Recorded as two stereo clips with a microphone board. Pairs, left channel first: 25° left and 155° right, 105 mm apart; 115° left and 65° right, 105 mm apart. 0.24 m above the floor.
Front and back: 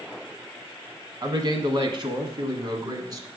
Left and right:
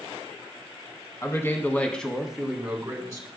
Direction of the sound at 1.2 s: 165° left.